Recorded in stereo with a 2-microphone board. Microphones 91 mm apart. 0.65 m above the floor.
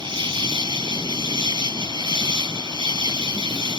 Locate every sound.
0.0 s an insect: 60° right (ahead or behind)